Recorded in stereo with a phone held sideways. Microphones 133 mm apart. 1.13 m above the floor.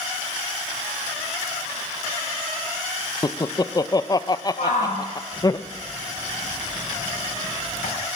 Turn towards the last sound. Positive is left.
turn(degrees=70)  # may be behind; listen again after turning